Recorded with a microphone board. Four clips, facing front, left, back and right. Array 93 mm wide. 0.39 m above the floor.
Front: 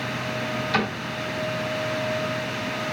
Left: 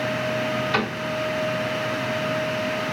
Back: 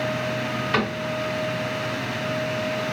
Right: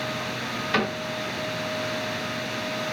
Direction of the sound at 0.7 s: 170° right.